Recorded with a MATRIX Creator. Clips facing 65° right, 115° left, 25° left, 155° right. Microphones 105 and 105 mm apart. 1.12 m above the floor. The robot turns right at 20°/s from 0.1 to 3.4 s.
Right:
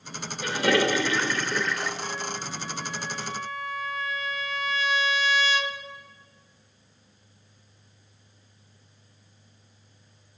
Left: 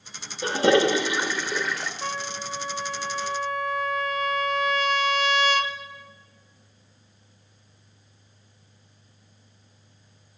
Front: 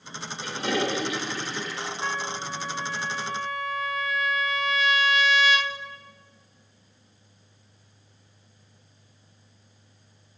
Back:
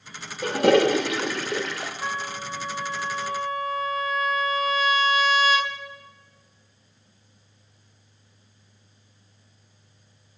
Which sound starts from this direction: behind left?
A trumpet, at 2.0 s.